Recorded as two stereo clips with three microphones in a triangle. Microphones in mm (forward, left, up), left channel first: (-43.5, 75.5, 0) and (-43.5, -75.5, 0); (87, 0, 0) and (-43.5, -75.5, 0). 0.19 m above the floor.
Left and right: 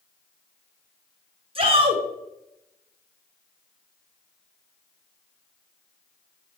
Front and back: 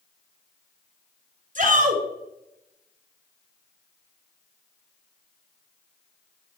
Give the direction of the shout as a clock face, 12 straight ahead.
5 o'clock.